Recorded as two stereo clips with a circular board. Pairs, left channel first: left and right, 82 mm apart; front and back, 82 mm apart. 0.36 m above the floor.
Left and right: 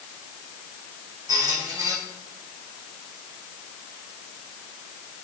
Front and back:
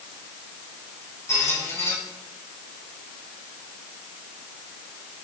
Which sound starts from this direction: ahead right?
A squeak, at 1.3 s.